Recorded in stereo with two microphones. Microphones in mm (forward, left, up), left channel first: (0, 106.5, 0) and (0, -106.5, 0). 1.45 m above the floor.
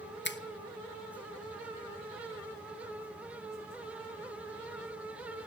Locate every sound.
0.2 s a finger snap: 55° left (ahead or behind), 0.9 m